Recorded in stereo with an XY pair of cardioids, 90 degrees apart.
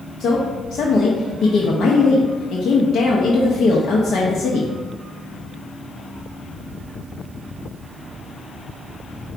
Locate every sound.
0.2 s a woman speaking: 70° left, 0.8 m